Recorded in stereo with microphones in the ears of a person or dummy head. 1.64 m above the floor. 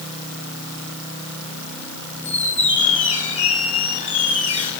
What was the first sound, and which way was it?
A squeak, 30° left (ahead or behind).